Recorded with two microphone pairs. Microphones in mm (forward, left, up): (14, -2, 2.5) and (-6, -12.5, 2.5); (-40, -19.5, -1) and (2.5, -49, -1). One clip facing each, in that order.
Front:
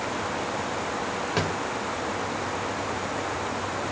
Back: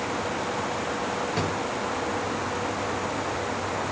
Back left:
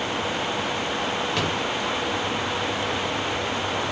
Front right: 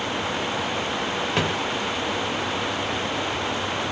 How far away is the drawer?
About 1.7 m.